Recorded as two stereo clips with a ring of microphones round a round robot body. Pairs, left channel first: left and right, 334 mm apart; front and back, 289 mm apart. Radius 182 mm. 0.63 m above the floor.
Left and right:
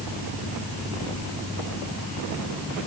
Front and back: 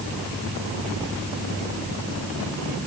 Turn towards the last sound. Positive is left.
No sound to turn to.